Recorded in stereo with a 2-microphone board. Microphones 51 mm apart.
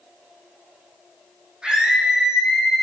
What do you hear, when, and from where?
1.6 s a scream: 20° right (ahead or behind), 6 m; by 2.8 s 10° right (ahead or behind), 6.5 m